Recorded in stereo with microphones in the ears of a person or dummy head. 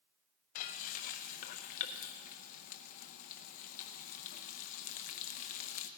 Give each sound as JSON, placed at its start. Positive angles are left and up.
{"t": 0.6, "sound": "frying", "side_deg": 50, "distance_m": 0.6}